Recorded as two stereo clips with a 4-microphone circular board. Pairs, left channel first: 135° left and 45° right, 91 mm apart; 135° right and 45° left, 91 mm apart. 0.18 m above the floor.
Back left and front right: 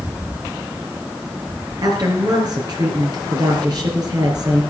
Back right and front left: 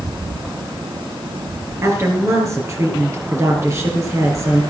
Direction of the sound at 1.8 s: 10° right.